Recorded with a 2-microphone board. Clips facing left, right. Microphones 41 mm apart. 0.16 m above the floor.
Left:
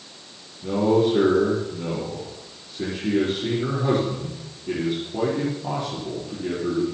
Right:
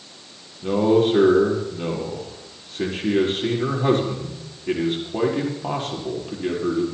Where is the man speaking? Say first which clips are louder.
Right 2 dB; 55° right (ahead or behind), 5.5 m.